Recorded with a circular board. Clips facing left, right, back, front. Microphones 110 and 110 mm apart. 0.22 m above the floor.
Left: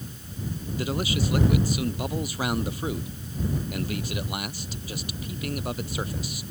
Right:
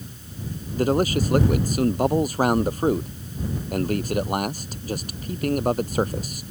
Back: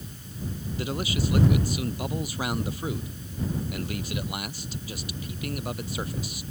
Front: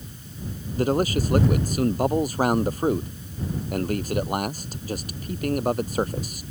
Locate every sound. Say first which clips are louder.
0.8 s a man speaking: right 8 dB, front 9 dB; 45° right